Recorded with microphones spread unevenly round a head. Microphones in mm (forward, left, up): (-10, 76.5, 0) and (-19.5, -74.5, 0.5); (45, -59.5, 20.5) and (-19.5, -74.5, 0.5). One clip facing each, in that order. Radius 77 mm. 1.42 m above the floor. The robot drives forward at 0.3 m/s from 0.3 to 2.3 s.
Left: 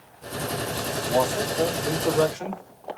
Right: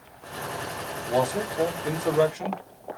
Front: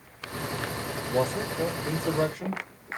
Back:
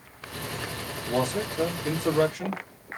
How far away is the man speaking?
About 1.2 m.